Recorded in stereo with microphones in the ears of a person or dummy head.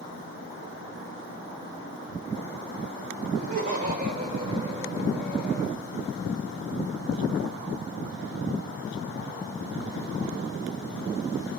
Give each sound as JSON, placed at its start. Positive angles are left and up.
{"t": 3.3, "sound": "laughter", "side_deg": -40, "distance_m": 1.9}